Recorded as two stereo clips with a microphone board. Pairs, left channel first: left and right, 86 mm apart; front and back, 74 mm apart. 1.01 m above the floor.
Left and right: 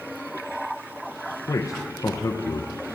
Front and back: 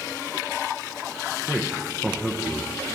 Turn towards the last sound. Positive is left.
turn(degrees=100)